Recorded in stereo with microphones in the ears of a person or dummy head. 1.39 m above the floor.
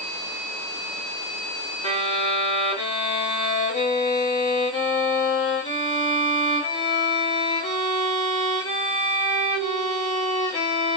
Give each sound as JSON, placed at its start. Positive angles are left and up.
{"t": 1.8, "sound": "a violin", "side_deg": 50, "distance_m": 1.5}